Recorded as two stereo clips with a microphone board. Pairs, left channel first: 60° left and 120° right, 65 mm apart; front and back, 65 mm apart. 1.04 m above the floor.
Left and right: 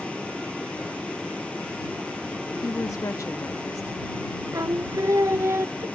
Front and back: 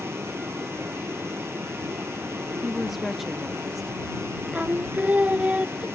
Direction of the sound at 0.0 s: 130° left.